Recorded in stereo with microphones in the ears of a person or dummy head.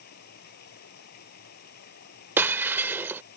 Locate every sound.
0.0 s running water: 55° left (ahead or behind)
2.4 s breaking glass: 10° right (ahead or behind)